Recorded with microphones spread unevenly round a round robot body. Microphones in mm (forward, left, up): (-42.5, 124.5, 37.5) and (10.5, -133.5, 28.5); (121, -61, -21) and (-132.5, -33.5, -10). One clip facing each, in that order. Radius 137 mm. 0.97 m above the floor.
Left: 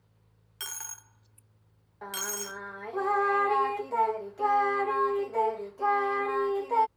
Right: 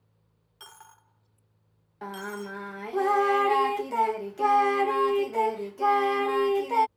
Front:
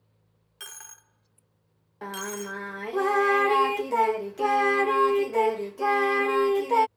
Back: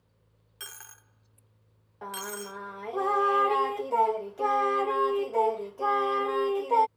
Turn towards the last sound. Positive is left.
turn(degrees=-50)